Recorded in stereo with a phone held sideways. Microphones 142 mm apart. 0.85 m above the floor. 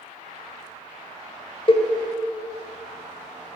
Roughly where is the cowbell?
Left.